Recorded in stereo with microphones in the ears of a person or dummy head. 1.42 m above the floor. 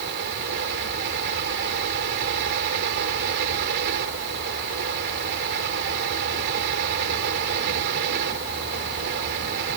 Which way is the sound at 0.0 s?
65° right (ahead or behind).